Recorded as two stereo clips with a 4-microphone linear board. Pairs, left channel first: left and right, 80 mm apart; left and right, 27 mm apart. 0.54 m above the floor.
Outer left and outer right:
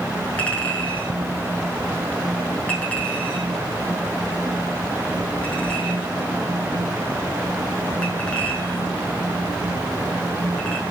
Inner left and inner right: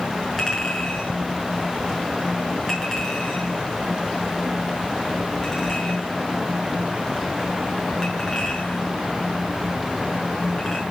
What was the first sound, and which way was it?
A clink, 15° left (ahead or behind).